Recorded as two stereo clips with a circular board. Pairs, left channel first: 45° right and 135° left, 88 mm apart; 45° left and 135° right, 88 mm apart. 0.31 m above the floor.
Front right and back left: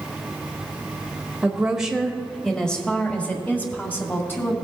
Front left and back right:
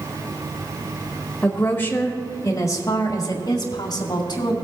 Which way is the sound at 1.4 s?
85° left.